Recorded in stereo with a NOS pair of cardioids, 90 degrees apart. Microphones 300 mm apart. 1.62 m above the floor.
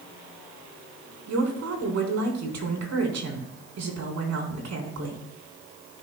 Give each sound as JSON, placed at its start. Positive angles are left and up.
{"t": 1.3, "sound": "a woman speaking", "azimuth_deg": -60, "distance_m": 4.0}